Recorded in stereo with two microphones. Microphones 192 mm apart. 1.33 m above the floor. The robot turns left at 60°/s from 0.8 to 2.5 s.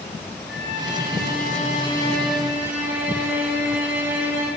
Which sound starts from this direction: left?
A violin, at 0.5 s.